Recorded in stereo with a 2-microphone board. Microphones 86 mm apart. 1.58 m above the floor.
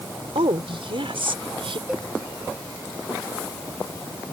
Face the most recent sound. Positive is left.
turn(degrees=-5)  # may be behind; listen again after turning